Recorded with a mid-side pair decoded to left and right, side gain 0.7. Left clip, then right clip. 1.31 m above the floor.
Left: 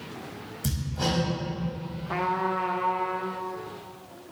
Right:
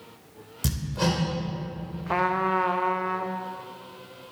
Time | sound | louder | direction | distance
0.6 | hammering | right 2 dB | 55° right | 2.5 m
2.1 | a trumpet | right 3 dB | 30° right | 0.6 m